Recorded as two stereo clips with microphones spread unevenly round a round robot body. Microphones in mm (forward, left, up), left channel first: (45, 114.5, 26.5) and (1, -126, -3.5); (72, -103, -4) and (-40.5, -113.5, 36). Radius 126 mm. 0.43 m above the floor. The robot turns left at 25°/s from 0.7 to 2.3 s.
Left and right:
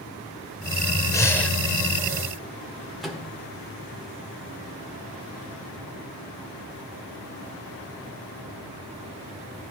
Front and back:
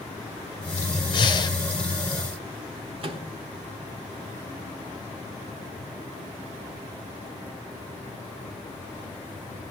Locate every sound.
1.1 s breathing: straight ahead, 1.0 m; by 1.6 s 10° right, 1.0 m
3.0 s a microwave: 175° right, 1.2 m